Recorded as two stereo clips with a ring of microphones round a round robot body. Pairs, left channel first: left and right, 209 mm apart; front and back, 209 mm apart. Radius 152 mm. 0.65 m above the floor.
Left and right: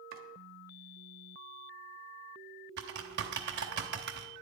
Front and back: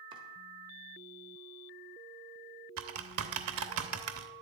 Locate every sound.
0.1 s chopping: 115° right, 1.1 m
2.8 s typing on a keyboard: 145° right, 0.6 m